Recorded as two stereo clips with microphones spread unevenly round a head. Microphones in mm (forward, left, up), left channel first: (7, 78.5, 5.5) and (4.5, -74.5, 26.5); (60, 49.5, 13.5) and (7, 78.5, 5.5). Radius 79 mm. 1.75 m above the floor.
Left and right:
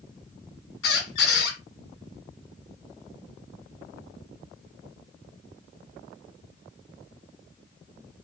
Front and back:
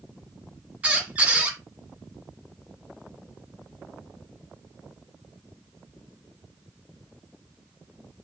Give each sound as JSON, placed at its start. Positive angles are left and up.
{"t": 0.8, "sound": "a squeak", "azimuth_deg": 80, "distance_m": 2.5}